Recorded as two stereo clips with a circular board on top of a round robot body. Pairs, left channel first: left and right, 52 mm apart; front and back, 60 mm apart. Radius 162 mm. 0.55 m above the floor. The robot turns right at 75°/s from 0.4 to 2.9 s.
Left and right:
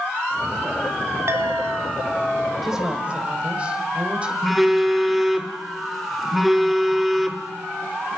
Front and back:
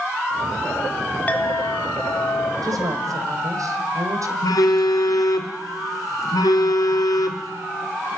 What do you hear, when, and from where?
1.3 s a clink: 65° right, 1.5 m; by 2.5 s 30° left, 1.5 m
2.6 s a woman speaking: straight behind, 3 m; by 4.3 s 155° right, 3 m
4.4 s a phone buzzing: 5° right, 1.8 m